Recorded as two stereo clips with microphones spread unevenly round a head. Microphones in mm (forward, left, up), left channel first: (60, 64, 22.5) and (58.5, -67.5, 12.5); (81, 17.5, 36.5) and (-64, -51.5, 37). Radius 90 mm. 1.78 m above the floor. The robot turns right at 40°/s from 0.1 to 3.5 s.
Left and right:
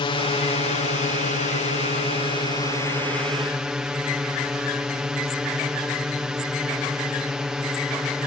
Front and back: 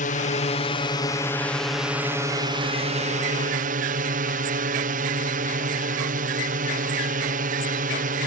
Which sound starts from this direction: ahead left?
A drone, at 0.0 s.